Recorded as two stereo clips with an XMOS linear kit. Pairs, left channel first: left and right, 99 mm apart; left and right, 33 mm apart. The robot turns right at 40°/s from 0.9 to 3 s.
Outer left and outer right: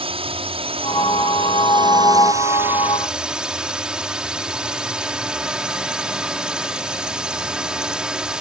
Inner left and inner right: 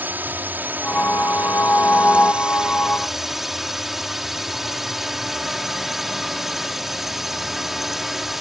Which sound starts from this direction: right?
A drone, at 0.0 s.